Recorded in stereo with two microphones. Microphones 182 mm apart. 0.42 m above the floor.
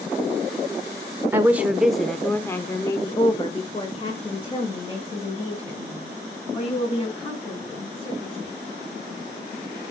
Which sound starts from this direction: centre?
A woman speaking, at 1.3 s.